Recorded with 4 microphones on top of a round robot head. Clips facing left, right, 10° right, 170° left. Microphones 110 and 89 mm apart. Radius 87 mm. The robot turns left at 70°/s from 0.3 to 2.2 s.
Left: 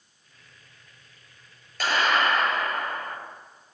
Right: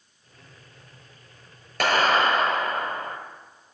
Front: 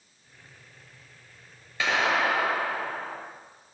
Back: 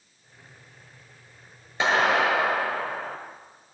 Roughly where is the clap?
Behind right.